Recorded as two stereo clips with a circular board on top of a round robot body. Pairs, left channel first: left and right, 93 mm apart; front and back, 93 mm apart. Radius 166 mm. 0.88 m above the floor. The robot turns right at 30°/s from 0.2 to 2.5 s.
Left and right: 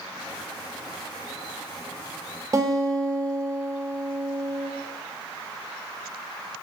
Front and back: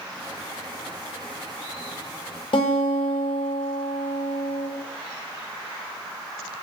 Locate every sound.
2.5 s a guitar: 30° right, 0.7 m